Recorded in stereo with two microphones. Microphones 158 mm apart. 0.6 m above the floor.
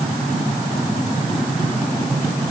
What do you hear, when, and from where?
Only background noise.